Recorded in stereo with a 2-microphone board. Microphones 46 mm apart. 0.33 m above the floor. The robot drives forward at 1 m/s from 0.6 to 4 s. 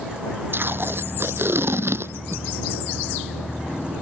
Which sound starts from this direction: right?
Tape being pulled, at 0.5 s.